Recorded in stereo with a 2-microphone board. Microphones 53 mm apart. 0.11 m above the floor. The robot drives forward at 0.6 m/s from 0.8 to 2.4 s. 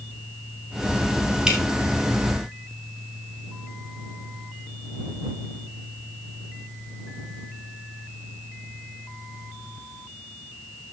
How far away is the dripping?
About 2.5 m.